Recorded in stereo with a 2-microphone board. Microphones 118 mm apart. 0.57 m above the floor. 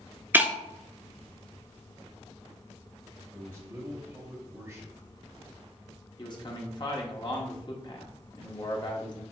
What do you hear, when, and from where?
0.3 s breaking glass: 15° right (ahead or behind), 0.5 m
3.3 s a man speaking: 20° right (ahead or behind), 2.5 m
6.2 s a man speaking: 40° left (ahead or behind), 0.9 m